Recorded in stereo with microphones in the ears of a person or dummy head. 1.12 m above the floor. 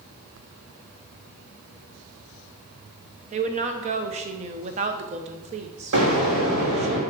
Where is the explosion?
70° right (ahead or behind), 3 m.